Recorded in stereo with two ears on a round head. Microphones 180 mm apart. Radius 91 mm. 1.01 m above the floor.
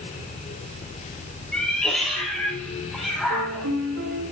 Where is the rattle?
No rattle in this recording.